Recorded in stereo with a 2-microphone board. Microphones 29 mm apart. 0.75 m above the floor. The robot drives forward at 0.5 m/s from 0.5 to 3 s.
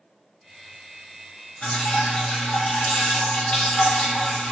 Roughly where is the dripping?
Left.